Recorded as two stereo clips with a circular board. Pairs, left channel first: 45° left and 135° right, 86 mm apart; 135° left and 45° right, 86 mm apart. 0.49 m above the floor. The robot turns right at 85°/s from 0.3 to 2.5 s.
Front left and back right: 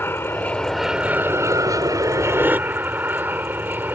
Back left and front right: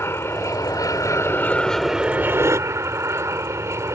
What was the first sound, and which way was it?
An aircraft, 95° left.